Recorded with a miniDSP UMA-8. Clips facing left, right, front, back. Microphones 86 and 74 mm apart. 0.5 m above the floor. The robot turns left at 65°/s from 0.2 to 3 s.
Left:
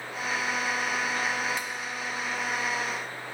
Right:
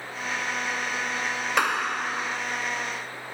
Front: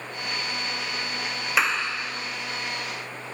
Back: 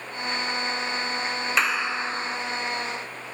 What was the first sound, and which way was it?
A clap, 85° right.